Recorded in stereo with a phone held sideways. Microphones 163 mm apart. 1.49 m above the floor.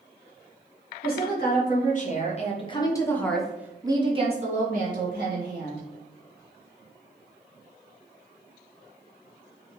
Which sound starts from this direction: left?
A woman speaking, at 1.0 s.